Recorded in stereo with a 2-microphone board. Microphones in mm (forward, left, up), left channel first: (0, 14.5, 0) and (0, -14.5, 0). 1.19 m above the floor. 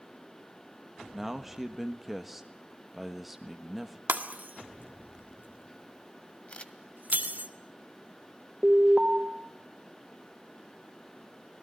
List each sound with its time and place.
1.1 s a man speaking: 5° right (ahead or behind), 1.5 m
4.1 s breaking glass: 80° right, 1.8 m
6.5 s a camera shutter: 40° left (ahead or behind), 1.7 m
8.6 s an alarm: 35° right (ahead or behind), 3 m